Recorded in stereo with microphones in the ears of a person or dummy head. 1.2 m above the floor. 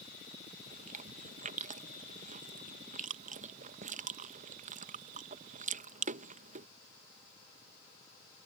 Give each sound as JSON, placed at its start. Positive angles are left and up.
{"t": 0.7, "sound": "chewing", "side_deg": -45}